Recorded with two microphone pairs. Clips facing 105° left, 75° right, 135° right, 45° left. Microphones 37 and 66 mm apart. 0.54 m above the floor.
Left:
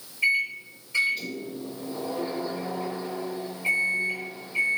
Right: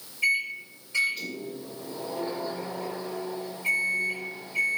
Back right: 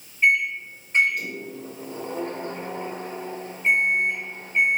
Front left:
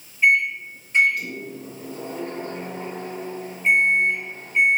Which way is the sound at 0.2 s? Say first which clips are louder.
Left 2 dB, front left 2 dB; 170° right.